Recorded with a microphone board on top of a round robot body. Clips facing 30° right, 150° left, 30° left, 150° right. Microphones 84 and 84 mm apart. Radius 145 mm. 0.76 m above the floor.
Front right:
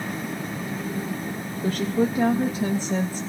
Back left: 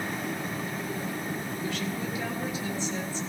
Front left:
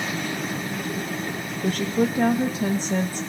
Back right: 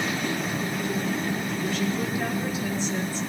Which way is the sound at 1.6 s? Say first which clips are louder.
Front right 13 dB, front left 7 dB; straight ahead.